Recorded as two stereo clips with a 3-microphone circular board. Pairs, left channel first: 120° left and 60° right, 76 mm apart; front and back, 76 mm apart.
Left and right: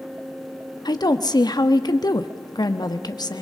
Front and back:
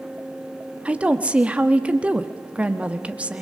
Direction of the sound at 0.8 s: 105° left.